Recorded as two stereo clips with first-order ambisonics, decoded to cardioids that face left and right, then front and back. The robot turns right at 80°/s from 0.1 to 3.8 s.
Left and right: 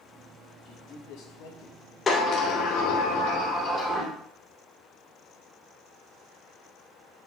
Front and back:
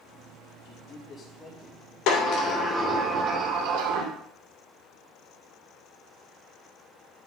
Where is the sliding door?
20° left, 2.5 m; by 4.1 s 160° left, 2.5 m.